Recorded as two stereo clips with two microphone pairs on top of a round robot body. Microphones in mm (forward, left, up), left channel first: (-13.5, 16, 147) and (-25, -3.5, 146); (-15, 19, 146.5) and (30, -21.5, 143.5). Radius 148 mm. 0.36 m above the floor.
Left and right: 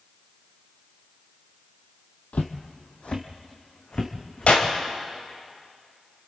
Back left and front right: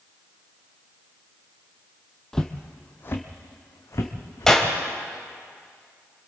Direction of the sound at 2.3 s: 55° left.